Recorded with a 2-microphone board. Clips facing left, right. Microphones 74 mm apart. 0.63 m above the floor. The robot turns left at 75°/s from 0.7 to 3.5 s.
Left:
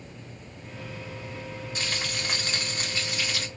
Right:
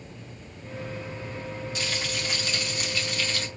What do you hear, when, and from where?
1.8 s frying: 130° left, 1.7 m; by 3.5 s straight ahead, 1.7 m